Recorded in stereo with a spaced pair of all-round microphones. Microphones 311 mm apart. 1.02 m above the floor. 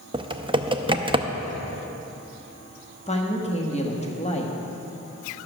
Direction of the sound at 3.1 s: 20° left (ahead or behind).